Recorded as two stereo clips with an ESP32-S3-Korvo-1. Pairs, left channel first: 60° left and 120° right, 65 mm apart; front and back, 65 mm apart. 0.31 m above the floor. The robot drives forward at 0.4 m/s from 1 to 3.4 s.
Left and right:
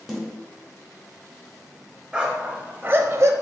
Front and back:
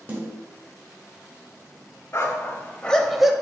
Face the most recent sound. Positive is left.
turn(degrees=-105)